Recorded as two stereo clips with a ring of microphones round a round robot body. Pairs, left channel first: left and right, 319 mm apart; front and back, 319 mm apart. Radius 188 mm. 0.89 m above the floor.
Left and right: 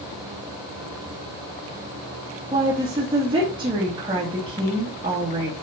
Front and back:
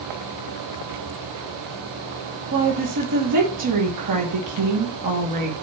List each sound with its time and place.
2.5 s a woman speaking: 165° right, 2.5 m